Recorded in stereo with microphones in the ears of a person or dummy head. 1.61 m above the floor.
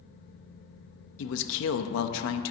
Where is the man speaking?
70° left (ahead or behind), 0.6 m.